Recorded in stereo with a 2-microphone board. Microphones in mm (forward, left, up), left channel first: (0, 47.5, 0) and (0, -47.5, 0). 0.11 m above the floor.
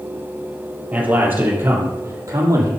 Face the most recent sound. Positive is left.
turn(degrees=-35)  # may be behind; listen again after turning